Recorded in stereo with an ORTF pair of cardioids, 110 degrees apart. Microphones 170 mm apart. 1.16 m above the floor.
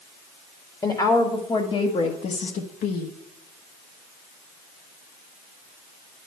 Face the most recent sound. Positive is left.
turn(degrees=65)